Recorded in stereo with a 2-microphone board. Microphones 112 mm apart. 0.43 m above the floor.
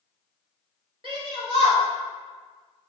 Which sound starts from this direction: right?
A shout, at 1.0 s.